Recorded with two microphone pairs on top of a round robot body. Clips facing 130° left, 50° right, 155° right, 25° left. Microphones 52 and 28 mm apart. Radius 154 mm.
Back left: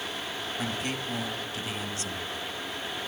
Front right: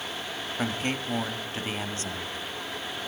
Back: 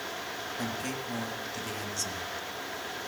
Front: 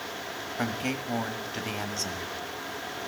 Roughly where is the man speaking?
Ahead right.